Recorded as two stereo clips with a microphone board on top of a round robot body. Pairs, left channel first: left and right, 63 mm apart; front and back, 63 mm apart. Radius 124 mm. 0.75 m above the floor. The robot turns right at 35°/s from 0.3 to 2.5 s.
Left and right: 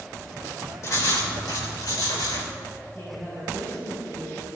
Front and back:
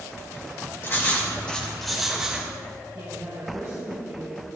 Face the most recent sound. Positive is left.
turn(degrees=155)